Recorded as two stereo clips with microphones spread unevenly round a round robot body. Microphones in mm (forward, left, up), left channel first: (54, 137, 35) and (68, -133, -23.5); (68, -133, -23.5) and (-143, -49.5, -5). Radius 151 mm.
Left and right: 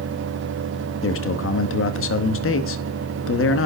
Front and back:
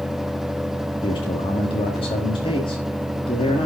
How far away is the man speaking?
About 1.3 m.